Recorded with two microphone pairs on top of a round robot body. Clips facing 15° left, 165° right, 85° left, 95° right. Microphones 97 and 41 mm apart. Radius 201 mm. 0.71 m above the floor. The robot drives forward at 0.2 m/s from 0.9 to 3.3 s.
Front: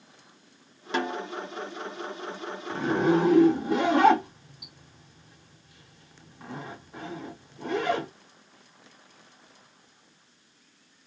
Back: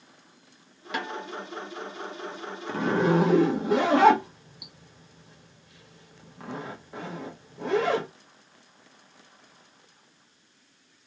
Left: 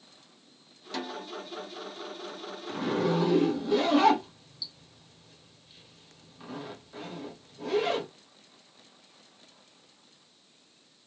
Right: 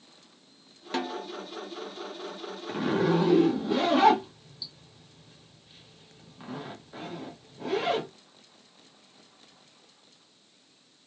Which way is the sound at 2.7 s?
170° right.